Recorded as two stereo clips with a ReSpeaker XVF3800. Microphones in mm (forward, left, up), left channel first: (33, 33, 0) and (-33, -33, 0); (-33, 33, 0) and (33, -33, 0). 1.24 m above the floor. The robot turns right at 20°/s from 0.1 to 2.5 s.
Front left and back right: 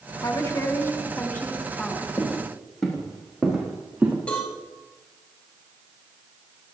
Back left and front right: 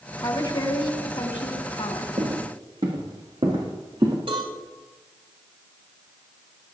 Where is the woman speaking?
95° left, 2.5 m; by 2.1 s 130° left, 2.5 m.